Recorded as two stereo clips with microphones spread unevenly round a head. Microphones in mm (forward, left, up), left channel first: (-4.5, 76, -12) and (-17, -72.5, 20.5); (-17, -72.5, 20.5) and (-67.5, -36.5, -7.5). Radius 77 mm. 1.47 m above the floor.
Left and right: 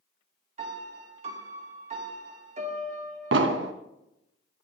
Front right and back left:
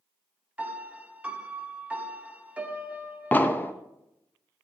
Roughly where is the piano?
Behind right.